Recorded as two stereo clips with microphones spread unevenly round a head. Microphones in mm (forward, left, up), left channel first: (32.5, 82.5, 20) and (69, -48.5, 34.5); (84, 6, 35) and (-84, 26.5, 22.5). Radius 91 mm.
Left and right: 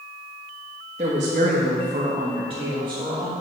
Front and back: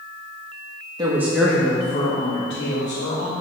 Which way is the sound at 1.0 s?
125° right.